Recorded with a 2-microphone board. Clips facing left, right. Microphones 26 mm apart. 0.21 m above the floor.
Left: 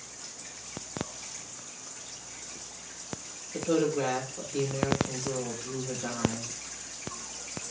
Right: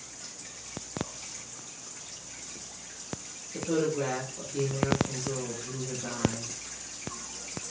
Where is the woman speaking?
25° left (ahead or behind), 5.5 m.